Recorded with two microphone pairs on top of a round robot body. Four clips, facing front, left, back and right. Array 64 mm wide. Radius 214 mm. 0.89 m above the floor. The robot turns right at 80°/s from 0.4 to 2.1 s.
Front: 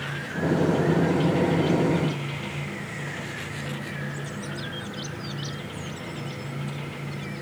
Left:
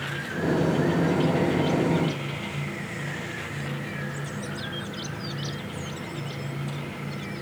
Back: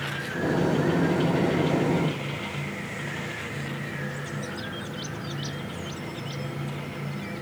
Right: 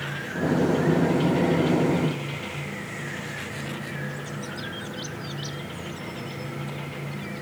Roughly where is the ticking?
I don't hear ticking.